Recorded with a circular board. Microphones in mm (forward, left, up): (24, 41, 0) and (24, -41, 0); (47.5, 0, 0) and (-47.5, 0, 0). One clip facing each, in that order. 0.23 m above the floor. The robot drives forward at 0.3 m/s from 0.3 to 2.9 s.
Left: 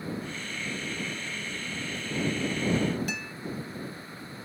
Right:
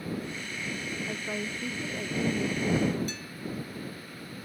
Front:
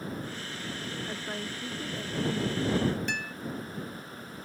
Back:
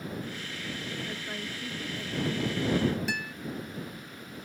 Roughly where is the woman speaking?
Right.